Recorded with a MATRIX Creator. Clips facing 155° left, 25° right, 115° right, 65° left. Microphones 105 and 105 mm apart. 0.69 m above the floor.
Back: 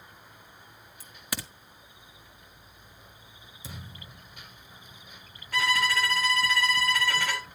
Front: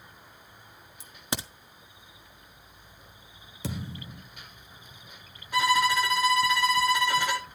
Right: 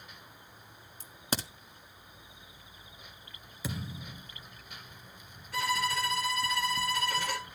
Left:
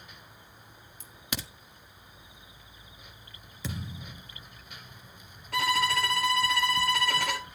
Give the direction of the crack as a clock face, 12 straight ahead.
3 o'clock.